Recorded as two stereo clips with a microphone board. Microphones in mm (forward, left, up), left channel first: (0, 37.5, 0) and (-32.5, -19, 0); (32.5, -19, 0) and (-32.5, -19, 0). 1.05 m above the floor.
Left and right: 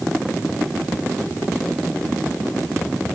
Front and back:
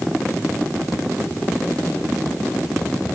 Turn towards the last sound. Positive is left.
No sound to turn to.